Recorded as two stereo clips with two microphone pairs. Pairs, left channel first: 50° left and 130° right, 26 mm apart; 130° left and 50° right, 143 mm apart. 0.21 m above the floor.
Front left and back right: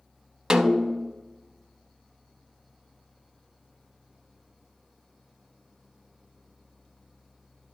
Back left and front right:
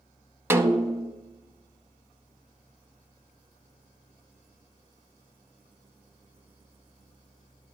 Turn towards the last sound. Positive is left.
turn(degrees=-120)